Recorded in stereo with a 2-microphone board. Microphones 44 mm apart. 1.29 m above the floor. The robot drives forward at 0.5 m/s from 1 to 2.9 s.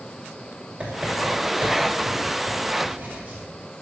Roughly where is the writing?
Right.